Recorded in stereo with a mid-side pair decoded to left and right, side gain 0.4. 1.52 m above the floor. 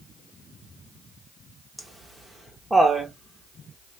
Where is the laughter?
15° right, 1.4 m.